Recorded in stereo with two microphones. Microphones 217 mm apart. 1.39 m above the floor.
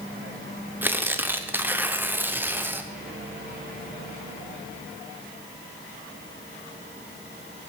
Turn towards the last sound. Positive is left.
turn(degrees=-10)  # may be behind; listen again after turning